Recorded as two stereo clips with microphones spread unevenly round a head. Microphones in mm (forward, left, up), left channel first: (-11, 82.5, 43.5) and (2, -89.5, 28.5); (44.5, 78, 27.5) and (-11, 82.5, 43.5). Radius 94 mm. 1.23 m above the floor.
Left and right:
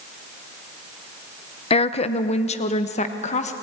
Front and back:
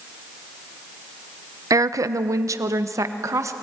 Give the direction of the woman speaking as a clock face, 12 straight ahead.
7 o'clock.